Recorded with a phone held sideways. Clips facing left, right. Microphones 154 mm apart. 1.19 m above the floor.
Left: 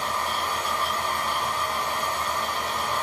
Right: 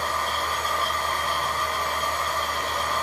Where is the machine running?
20° left (ahead or behind), 1.6 m.